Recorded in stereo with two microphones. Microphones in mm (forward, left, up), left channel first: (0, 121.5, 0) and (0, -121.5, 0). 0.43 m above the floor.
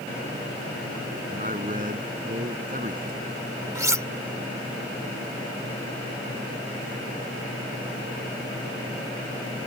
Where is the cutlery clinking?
15° right (ahead or behind).